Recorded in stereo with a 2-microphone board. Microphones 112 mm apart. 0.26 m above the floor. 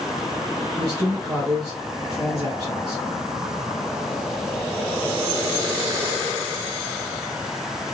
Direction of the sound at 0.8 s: 35° right (ahead or behind).